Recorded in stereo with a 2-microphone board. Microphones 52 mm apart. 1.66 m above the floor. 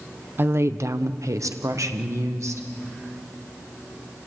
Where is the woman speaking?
45° right (ahead or behind), 0.7 m; by 2.7 s 75° right (ahead or behind), 2 m.